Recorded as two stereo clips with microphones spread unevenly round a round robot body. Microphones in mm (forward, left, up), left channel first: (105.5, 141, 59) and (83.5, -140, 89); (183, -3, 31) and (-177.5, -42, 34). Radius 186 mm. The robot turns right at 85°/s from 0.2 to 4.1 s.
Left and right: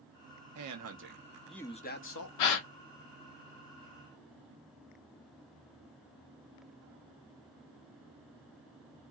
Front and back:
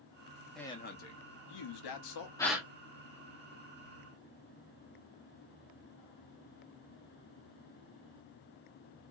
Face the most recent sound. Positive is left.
turn(degrees=-130)